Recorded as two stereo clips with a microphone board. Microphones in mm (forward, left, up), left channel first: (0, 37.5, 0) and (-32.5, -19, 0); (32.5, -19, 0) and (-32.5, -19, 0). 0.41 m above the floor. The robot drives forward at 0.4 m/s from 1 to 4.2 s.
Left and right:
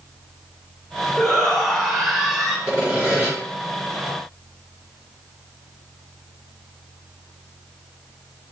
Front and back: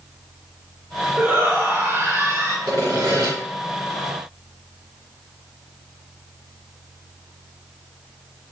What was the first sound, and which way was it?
A shout, 140° left.